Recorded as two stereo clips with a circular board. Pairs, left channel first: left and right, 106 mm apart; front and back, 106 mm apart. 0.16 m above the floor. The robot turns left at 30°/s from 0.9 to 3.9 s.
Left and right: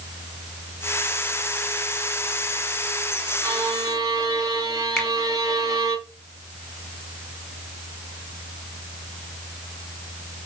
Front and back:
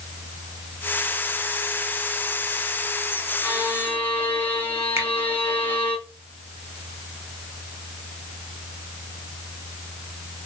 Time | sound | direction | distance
3.4 | a violin | 45° right | 1.0 m
5.0 | a finger snap | 160° left | 0.9 m